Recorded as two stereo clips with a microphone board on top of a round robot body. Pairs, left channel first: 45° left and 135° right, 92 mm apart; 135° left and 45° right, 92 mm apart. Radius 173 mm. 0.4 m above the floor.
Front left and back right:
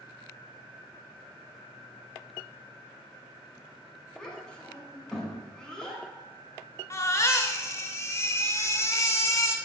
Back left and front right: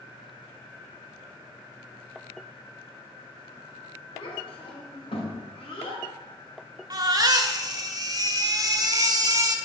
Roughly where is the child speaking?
Behind left.